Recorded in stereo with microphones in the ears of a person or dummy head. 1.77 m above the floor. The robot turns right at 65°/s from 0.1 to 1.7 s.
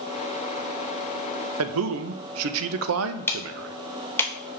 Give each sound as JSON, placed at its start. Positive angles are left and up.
{"t": 1.6, "sound": "a man speaking", "side_deg": -85, "distance_m": 0.6}
{"t": 3.3, "sound": "ticking", "side_deg": 10, "distance_m": 0.6}